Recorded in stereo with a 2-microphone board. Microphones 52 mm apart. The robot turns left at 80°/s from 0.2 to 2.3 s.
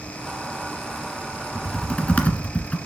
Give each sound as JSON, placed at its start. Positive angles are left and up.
{"t": 1.6, "sound": "typing on a keyboard", "side_deg": 10, "distance_m": 1.6}